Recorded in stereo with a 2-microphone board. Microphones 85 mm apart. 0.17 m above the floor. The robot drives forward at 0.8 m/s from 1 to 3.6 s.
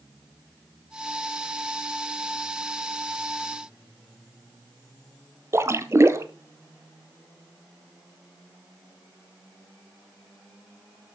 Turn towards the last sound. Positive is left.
turn(degrees=-30)  # may be behind; listen again after turning